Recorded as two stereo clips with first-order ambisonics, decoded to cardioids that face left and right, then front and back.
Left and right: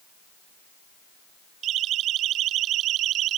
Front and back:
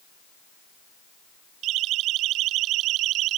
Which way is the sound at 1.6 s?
140° right.